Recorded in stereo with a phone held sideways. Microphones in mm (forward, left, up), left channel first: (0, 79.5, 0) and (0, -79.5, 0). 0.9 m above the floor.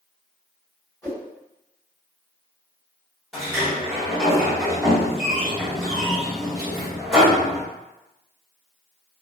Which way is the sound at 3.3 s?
Centre (ahead or behind).